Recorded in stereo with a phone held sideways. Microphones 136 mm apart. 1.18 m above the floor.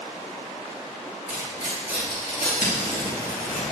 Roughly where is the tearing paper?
Left.